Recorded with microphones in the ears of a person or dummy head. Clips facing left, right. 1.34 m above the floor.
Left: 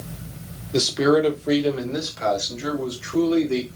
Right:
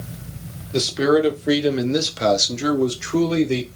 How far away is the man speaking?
About 1.0 m.